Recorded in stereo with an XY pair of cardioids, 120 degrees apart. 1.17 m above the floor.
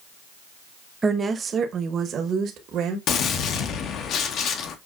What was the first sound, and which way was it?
A woman speaking, 25° right.